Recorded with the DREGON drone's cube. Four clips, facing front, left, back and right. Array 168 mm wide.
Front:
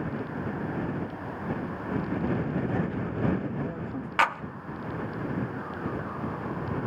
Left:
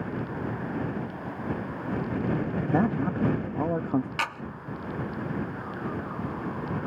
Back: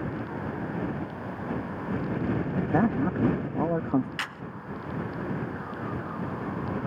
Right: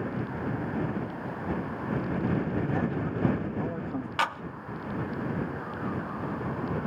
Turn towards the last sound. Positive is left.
turn(degrees=-15)